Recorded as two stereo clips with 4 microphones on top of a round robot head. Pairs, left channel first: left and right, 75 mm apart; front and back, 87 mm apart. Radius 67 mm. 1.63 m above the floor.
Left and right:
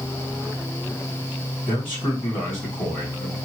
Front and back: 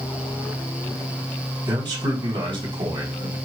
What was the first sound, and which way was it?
A man speaking, 155° left.